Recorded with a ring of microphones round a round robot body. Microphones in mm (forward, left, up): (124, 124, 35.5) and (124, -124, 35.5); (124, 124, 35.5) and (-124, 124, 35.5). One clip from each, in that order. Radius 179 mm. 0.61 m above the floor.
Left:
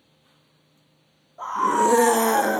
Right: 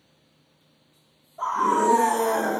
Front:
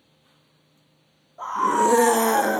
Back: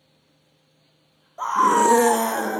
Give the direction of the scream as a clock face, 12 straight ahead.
6 o'clock.